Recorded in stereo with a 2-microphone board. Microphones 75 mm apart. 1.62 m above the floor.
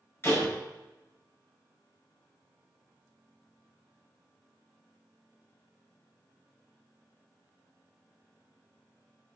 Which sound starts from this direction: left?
A door slam, at 0.2 s.